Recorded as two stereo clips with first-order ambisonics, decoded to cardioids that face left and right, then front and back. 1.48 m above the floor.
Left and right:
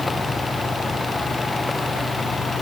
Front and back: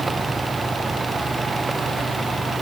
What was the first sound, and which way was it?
Only background noise.